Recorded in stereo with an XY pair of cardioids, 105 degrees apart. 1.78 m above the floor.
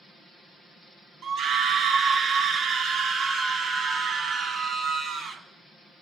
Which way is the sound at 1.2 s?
60° right.